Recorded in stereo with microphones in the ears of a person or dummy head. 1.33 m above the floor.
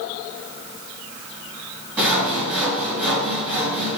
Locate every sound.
2.0 s sawing: 10° right (ahead or behind), 1.9 m